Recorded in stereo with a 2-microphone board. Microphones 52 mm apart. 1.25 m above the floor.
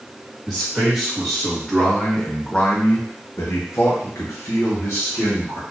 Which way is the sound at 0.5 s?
10° right (ahead or behind).